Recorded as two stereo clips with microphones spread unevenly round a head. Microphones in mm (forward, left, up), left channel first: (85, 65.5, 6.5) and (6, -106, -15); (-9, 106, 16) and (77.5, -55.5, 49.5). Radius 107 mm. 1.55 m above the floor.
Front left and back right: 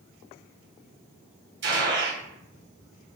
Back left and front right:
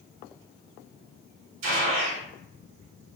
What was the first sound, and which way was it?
A gunshot, 90° right.